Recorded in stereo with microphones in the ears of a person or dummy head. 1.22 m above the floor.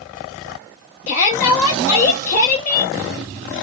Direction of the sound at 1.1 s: 40° left (ahead or behind).